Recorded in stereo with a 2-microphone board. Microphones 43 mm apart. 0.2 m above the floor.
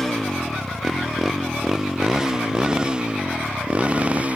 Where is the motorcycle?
10° left (ahead or behind); by 4.4 s 30° right (ahead or behind).